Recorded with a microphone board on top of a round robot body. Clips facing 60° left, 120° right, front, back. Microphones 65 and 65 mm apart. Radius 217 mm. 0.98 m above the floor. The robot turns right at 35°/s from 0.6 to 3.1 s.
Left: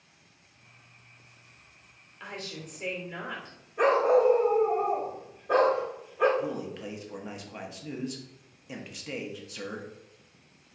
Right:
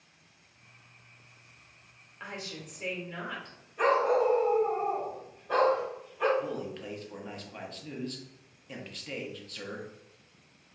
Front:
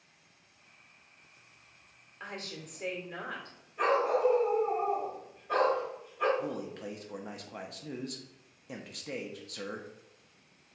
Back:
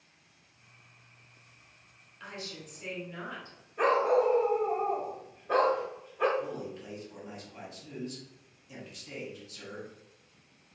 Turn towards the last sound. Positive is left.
turn(degrees=-15)